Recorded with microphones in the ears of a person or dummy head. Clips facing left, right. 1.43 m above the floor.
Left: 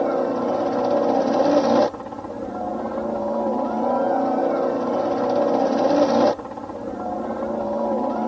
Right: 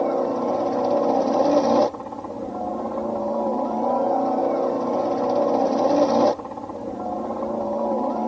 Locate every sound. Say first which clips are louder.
0.0 s a helicopter: left 1 dB; 5° left (ahead or behind)